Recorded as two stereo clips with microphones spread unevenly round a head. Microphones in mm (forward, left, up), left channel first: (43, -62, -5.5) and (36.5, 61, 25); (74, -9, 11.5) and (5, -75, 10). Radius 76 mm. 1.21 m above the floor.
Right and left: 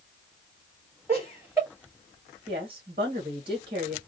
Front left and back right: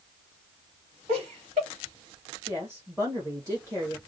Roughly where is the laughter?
Behind.